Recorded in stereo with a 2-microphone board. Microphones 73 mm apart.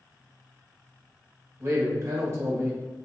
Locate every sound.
1.6 s a man speaking: 40° right (ahead or behind), 1.2 m